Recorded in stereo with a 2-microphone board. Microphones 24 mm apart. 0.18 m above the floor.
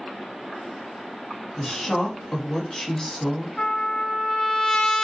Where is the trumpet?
30° left (ahead or behind), 1.5 m.